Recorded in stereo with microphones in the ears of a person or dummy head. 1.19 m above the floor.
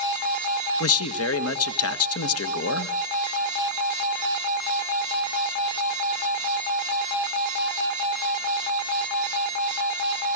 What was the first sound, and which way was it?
A man speaking, 70° left (ahead or behind).